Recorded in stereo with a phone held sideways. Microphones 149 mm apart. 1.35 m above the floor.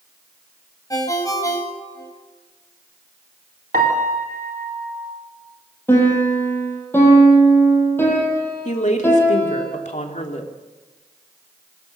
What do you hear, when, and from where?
0.9 s a ringtone: 25° left (ahead or behind), 4.5 m
3.7 s a piano: 80° right, 4 m
5.9 s a piano: 15° left (ahead or behind), 7.5 m
8.7 s a woman speaking: 55° left (ahead or behind), 3 m